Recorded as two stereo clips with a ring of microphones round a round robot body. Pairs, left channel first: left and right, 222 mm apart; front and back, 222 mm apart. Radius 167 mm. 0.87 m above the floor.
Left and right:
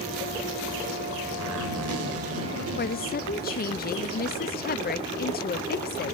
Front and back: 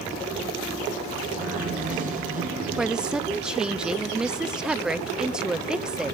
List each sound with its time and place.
1.4 s a zipper: 95° right, 4 m
2.8 s a woman speaking: 95° left, 0.7 m